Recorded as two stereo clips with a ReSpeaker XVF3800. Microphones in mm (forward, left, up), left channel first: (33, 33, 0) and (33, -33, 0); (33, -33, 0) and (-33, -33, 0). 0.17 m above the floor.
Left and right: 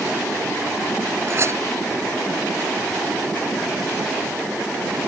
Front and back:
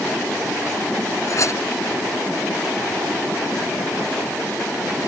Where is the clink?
40° right.